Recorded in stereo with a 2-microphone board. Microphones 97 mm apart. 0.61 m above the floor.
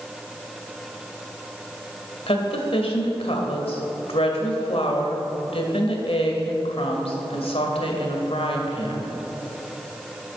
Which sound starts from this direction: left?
A woman speaking, at 2.3 s.